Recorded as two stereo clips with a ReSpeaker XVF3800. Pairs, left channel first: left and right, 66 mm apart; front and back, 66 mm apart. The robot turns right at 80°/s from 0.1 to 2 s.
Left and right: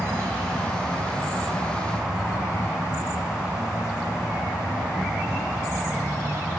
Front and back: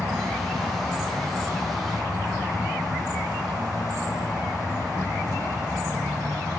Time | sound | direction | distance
0.0 | an insect | 40° left | 7.5 m